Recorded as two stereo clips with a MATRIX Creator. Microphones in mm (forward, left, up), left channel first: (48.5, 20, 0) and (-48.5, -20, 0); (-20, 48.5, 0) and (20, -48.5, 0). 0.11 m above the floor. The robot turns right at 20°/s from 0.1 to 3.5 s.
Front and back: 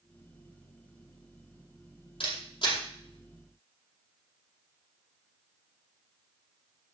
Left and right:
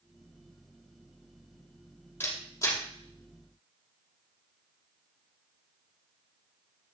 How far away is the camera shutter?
About 4 m.